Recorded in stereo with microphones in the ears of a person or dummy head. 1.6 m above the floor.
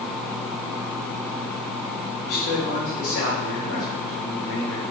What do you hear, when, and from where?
2.2 s a man speaking: 70° left (ahead or behind), 1.8 m